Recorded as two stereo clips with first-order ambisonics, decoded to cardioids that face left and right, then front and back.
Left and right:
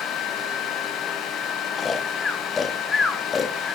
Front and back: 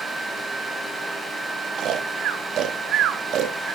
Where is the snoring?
155° left, 0.7 m.